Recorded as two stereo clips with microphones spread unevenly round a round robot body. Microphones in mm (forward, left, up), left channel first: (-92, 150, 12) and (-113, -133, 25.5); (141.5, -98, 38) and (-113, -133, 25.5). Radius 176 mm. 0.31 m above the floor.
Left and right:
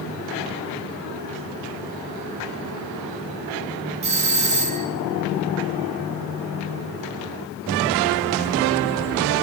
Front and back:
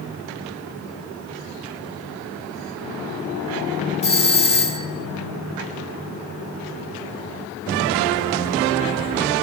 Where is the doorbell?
40° right, 2 m.